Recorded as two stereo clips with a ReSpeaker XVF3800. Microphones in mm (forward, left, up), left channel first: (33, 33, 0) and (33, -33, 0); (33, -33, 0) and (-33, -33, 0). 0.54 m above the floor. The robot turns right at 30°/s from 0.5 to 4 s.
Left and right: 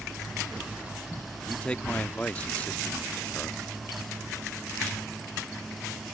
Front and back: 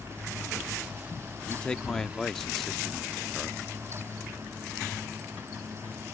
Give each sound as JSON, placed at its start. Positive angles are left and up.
{"t": 1.5, "sound": "a man speaking", "azimuth_deg": 45}